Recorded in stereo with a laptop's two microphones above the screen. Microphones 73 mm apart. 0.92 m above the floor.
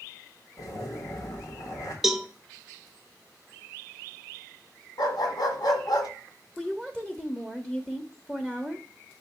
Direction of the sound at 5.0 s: 65° left (ahead or behind).